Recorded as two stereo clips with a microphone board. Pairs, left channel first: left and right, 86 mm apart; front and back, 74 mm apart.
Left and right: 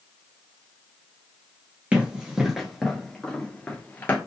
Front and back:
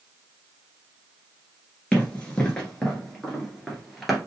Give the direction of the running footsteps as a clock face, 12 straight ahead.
2 o'clock.